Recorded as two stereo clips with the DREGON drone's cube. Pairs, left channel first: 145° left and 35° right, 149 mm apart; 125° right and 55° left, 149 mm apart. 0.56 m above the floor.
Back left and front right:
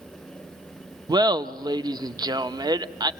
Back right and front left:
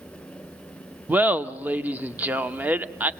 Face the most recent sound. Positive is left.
turn(degrees=-10)